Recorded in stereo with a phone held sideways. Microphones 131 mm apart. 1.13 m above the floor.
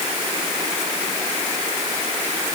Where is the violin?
No violin in this recording.